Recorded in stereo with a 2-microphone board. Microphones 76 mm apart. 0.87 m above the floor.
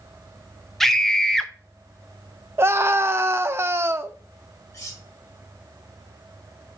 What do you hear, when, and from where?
0.8 s a scream: 5° left (ahead or behind), 0.8 m
2.6 s a scream: 35° right (ahead or behind), 0.6 m
4.7 s cutlery clinking: 50° left (ahead or behind), 3 m